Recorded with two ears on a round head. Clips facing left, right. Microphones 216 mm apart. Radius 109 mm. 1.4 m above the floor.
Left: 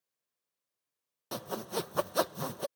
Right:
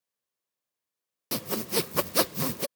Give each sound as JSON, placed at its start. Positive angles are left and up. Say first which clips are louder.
{"t": 1.3, "sound": "sawing", "louder": "right 6 dB", "side_deg": -35}